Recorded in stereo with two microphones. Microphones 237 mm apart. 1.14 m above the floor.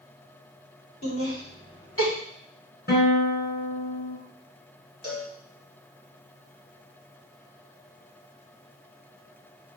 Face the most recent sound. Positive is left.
turn(degrees=75)  # may be behind; listen again after turning